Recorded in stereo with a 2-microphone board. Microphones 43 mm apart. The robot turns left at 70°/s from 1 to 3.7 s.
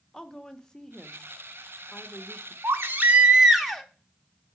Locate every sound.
0.1 s a woman speaking: 160° left, 0.9 m; by 2.5 s 55° left, 0.9 m
2.6 s a baby crying: 105° right, 1.0 m; by 3.8 s straight behind, 1.0 m